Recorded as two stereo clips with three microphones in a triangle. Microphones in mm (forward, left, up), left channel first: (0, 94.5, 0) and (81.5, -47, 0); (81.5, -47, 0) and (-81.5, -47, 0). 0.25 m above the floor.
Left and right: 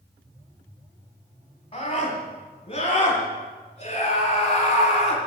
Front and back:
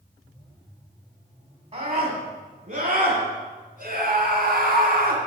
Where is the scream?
155° left, 2 m; by 5.2 s 165° left, 4 m.